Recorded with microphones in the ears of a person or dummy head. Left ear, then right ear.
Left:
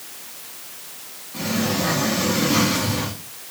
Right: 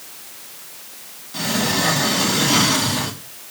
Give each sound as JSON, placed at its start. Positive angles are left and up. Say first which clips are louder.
{"t": 1.3, "sound": "a sliding door", "louder": "right 3 dB", "side_deg": -35, "distance_m": 1.2}